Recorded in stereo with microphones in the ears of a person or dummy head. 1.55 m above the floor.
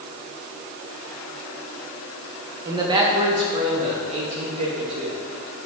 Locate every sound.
2.6 s a man speaking: 15° right (ahead or behind), 1.5 m; by 5.2 s 35° right (ahead or behind), 3 m